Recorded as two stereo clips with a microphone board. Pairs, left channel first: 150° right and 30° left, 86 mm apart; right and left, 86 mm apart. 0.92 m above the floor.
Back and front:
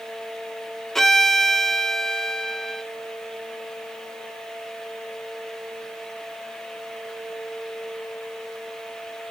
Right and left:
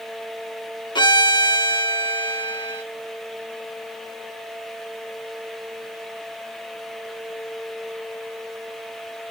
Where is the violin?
65° right, 0.9 m.